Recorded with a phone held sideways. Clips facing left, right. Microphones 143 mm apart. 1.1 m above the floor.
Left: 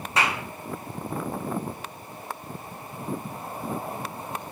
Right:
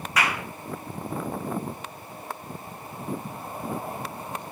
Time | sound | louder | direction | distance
0.2 | a clap | left 1 dB | 30° left (ahead or behind) | 3 m